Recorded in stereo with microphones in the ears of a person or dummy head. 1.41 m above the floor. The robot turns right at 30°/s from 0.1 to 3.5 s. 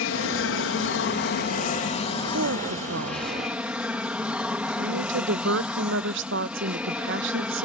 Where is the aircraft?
85° left; by 7.7 s 175° right.